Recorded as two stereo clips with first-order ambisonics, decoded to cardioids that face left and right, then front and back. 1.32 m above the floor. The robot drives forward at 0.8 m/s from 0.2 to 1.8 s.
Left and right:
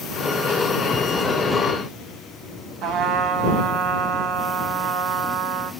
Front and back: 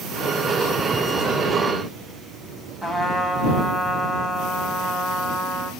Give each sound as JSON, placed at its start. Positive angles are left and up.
{"t": 2.8, "sound": "a trumpet", "azimuth_deg": -100, "distance_m": 1.5}